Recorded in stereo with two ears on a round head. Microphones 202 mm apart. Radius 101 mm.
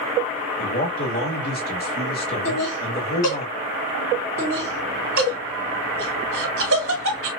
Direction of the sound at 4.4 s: 55° right (ahead or behind).